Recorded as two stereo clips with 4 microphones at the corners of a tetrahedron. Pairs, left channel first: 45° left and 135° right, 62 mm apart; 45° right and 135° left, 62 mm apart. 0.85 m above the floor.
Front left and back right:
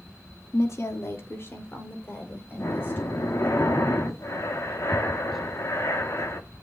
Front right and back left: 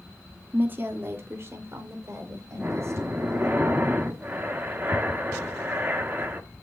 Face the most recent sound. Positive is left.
turn(degrees=80)